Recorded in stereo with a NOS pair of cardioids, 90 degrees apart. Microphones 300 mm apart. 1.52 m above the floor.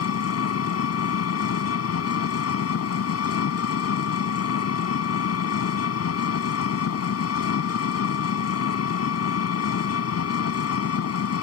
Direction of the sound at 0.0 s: 55° left.